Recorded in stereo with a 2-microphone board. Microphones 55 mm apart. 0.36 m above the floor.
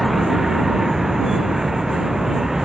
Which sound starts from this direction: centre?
A vehicle, at 0.0 s.